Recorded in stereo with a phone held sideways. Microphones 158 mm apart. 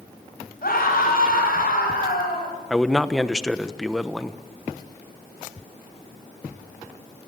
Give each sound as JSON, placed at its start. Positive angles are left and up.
{"t": 0.6, "sound": "a scream", "side_deg": 75, "distance_m": 9.0}
{"t": 2.7, "sound": "a man speaking", "side_deg": 0, "distance_m": 1.0}